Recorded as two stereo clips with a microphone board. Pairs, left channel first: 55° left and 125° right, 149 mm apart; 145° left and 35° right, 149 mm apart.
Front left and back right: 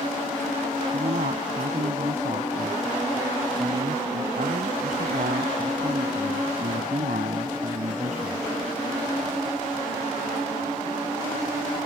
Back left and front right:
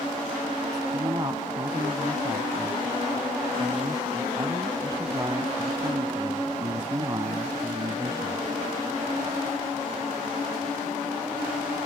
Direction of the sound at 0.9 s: 100° right.